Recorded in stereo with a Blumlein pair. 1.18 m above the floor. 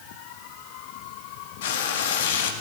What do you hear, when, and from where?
1.6 s frying: 55° left, 2.5 m